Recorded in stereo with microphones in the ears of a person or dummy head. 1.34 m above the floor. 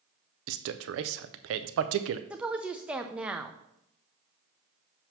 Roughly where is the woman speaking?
Centre.